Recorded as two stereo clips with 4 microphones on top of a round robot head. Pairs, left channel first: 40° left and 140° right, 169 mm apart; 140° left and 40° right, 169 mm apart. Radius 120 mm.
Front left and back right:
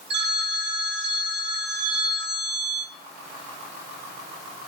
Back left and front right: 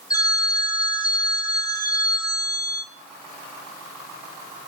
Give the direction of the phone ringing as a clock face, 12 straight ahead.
5 o'clock.